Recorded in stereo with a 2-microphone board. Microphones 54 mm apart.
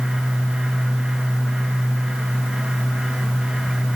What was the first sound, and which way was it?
Only background noise.